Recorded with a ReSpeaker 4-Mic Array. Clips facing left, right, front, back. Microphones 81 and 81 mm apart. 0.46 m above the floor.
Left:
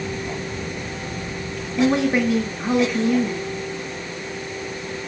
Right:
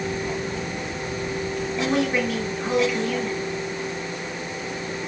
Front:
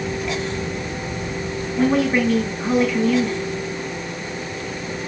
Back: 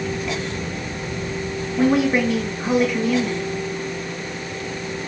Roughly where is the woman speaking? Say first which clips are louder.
Left 5 dB, even; behind left.